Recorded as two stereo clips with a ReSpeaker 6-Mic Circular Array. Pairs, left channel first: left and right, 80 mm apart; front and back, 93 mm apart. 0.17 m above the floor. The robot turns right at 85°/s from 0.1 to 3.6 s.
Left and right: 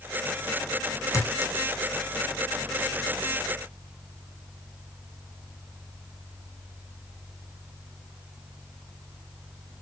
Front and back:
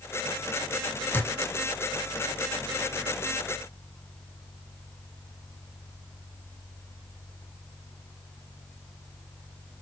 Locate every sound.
1.1 s a clink: 60° left, 1.2 m; by 2.4 s 160° left, 1.2 m